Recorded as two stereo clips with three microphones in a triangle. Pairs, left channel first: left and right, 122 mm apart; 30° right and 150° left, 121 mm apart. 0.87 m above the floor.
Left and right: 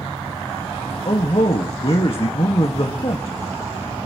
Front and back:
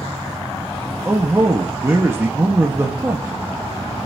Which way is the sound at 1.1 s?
85° left.